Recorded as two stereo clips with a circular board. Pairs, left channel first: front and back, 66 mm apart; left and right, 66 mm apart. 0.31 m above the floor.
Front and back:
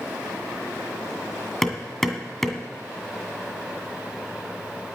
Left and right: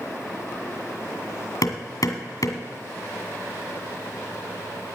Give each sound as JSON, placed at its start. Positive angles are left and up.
{"t": 1.6, "sound": "hammering", "azimuth_deg": 85, "distance_m": 2.0}